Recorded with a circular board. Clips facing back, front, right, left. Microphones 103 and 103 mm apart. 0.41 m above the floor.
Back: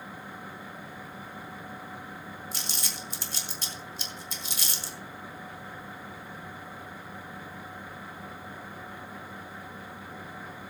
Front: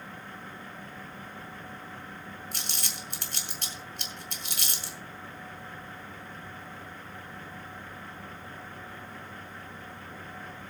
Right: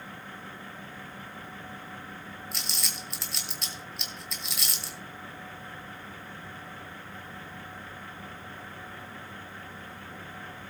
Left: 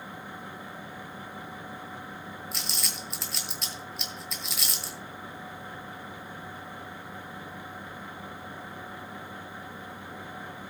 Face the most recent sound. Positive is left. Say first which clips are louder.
# back 1 dB, left 2 dB
turn(degrees=0)